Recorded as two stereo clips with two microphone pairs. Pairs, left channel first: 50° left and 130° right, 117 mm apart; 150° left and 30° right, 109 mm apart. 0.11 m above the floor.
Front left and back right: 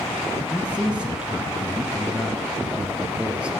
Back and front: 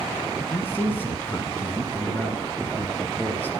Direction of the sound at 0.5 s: 170° left.